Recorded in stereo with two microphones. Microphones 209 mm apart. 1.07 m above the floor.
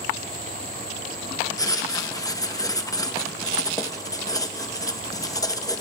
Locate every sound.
1.6 s writing: 15° left (ahead or behind), 0.8 m